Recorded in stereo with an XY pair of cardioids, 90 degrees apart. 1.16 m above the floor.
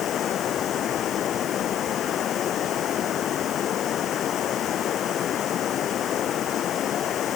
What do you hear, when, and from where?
0.0 s running water: 65° left